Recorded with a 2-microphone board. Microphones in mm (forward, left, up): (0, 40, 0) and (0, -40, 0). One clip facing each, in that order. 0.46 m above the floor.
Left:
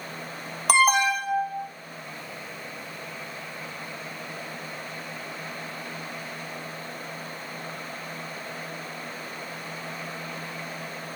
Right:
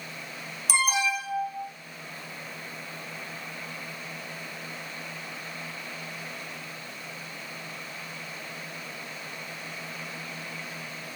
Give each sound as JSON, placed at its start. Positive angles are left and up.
{"t": 0.7, "sound": "an alarm", "side_deg": 65, "distance_m": 2.0}